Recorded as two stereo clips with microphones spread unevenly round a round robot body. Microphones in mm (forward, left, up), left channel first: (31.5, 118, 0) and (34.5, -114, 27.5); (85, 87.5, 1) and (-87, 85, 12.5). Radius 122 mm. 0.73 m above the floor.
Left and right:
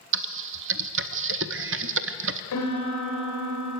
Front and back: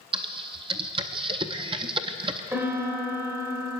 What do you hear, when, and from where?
0.1 s typing on a keyboard: 115° right, 0.6 m
2.5 s a piano: 105° left, 4 m